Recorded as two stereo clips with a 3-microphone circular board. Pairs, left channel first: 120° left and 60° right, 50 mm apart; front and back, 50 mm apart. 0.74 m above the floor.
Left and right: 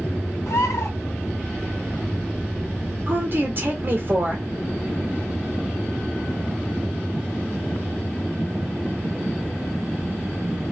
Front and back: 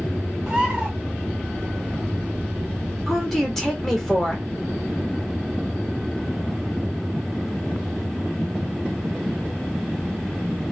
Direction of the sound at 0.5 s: 105° left.